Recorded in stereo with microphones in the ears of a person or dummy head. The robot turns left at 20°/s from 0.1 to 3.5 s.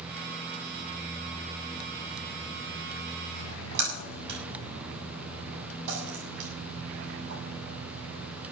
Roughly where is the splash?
Right.